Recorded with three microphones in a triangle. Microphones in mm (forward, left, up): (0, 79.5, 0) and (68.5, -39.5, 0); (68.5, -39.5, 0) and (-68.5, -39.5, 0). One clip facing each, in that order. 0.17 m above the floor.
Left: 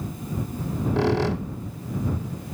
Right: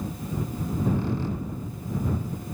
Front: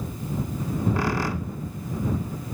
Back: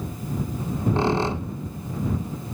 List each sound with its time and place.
0.6 s a squeak: 115° left